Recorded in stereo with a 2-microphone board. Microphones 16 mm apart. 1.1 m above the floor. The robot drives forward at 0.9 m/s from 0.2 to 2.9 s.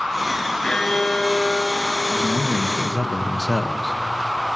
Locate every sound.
0.6 s a violin: 30° left (ahead or behind), 3 m; by 2.0 s 50° left (ahead or behind), 2.5 m
2.1 s a man speaking: 15° left (ahead or behind), 1.8 m; by 4.0 s 20° left (ahead or behind), 1.2 m